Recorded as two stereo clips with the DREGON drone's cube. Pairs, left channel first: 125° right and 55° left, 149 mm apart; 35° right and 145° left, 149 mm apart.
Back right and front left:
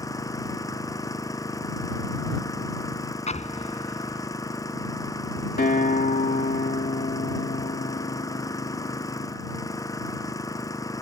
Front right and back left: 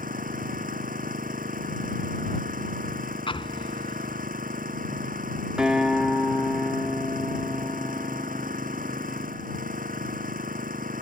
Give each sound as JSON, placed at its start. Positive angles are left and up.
{"t": 0.0, "sound": "an engine running", "azimuth_deg": 170}
{"t": 3.3, "sound": "an explosion", "azimuth_deg": -85}
{"t": 5.6, "sound": "a guitar", "azimuth_deg": -130}